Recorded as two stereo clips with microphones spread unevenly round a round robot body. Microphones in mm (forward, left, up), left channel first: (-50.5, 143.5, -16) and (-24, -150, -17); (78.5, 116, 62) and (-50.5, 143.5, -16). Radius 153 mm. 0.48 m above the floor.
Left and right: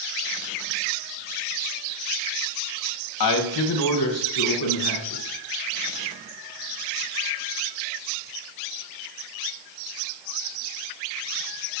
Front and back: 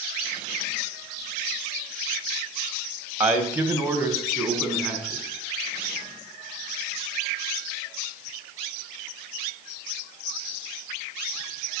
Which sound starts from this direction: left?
A man speaking, at 3.2 s.